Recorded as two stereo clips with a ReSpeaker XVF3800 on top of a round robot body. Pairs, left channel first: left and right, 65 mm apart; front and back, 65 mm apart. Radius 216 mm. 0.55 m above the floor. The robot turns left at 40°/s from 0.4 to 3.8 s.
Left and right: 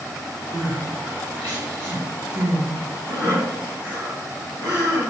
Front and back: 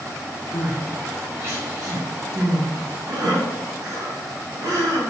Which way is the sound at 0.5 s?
85° right.